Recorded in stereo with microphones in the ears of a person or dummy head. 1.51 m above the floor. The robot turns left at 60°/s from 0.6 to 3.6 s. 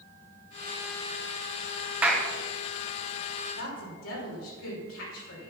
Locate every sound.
2.0 s a clap: 10° right (ahead or behind), 1.2 m; by 2.3 s 5° left (ahead or behind), 1.2 m
3.6 s a woman speaking: 65° left (ahead or behind), 5.5 m